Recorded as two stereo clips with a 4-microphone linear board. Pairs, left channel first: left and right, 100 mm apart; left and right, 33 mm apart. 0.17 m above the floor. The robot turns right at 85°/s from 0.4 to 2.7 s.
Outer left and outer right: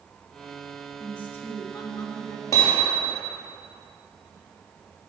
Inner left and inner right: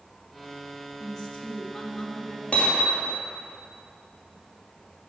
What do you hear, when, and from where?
1.0 s a woman speaking: 5° left, 1.5 m; by 2.4 s 125° left, 1.5 m
2.5 s hammering: 35° left (ahead or behind), 2 m; by 3.2 s 20° left (ahead or behind), 2 m